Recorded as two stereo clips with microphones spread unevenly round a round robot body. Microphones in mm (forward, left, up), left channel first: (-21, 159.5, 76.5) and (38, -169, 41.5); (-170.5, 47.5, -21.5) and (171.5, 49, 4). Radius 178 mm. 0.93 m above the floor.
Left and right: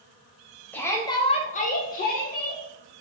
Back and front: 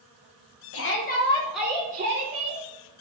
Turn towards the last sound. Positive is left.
turn(degrees=35)